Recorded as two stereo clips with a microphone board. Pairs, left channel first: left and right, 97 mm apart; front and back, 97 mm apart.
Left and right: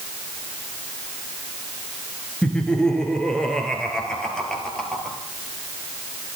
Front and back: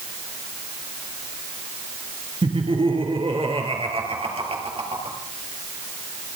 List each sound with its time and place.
2.4 s laughter: 170° left, 3 m; by 5.2 s 175° left, 4 m